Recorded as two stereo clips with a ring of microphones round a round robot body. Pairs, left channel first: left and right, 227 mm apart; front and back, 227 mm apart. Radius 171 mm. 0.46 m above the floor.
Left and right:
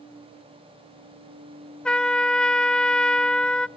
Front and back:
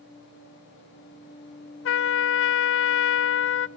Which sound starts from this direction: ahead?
A trumpet, at 1.9 s.